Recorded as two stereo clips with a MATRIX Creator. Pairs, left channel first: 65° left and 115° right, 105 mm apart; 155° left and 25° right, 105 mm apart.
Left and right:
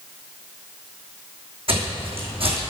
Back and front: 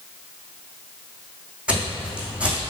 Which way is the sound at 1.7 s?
100° right.